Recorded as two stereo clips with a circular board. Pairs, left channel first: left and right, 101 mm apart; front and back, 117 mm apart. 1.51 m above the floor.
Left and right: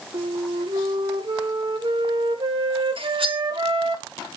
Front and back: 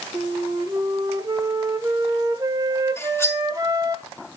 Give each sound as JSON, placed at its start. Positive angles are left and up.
{"t": 0.1, "sound": "a flute", "azimuth_deg": -120, "distance_m": 1.4}
{"t": 3.0, "sound": "cutlery clinking", "azimuth_deg": -70, "distance_m": 2.0}